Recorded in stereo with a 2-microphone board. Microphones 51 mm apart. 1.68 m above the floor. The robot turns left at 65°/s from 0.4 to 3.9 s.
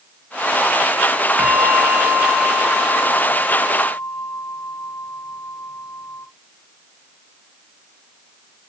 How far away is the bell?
About 0.5 m.